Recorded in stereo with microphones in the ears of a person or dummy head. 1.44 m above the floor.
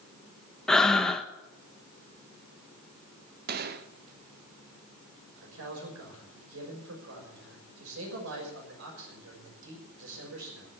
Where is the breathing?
15° left (ahead or behind), 0.9 m.